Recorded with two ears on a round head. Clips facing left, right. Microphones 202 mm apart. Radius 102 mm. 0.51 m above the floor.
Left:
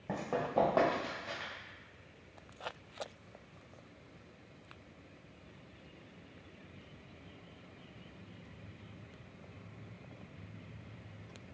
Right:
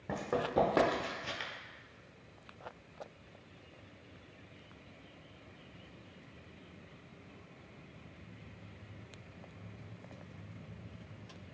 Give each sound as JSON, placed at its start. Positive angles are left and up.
{"t": 0.1, "sound": "running footsteps", "side_deg": -10, "distance_m": 1.5}